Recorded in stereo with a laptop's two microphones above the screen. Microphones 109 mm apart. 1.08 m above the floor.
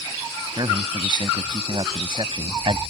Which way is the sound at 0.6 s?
40° right (ahead or behind).